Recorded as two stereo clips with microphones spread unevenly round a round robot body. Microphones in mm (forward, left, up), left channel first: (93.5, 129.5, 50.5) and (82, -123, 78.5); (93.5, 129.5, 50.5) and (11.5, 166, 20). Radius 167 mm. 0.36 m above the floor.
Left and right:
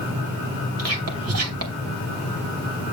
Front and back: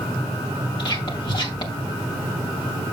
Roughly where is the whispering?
Right.